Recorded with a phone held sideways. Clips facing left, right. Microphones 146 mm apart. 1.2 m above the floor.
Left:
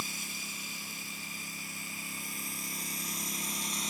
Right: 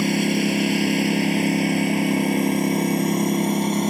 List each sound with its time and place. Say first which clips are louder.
0.0 s a lawn mower: right 25 dB; 75° right (ahead or behind); by 3.9 s 60° right (ahead or behind)